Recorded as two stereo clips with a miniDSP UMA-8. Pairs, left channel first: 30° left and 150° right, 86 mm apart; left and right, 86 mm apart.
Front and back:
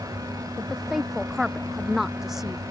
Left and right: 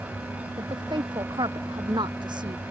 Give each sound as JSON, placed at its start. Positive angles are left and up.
{"t": 0.6, "sound": "a woman speaking", "azimuth_deg": -65}